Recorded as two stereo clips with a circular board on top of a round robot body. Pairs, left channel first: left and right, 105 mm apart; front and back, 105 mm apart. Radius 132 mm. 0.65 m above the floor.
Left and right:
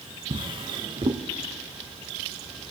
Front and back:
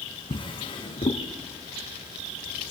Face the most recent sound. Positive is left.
turn(degrees=-45)